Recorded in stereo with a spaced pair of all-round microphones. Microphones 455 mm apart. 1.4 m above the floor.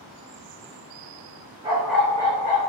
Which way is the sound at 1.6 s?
10° right (ahead or behind).